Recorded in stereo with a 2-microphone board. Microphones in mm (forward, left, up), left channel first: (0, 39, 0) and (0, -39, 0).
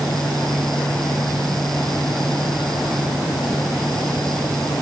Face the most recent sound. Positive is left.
No sound to turn to.